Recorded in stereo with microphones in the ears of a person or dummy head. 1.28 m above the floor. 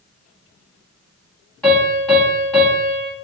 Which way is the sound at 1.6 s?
5° left (ahead or behind).